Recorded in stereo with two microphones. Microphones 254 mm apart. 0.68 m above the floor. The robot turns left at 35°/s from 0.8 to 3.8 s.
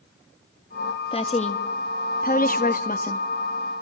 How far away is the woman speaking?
About 1.2 m.